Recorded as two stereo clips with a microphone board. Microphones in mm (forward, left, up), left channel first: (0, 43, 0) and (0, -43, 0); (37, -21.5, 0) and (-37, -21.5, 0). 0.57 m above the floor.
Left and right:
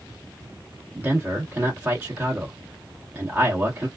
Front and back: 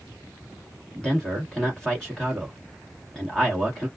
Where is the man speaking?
60° right, 1.2 m.